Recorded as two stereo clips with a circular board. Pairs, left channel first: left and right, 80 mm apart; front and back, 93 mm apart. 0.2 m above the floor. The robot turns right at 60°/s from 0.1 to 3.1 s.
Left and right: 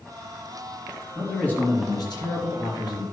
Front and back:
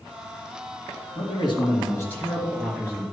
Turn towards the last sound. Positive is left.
turn(degrees=125)